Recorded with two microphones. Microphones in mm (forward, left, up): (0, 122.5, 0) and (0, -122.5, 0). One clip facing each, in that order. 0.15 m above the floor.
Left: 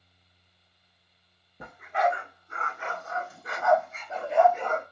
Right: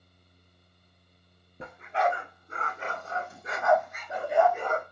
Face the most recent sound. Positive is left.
turn(degrees=-10)  # may be behind; listen again after turning